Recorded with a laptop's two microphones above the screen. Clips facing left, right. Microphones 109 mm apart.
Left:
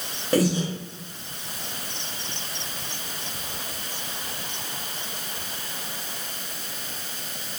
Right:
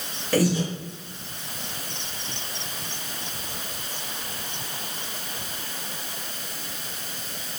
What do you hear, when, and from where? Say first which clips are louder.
0.3 s breathing: even; 20° left (ahead or behind), 0.8 m